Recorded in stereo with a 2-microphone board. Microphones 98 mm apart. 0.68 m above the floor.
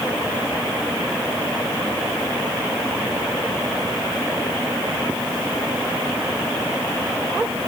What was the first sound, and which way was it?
Only background noise.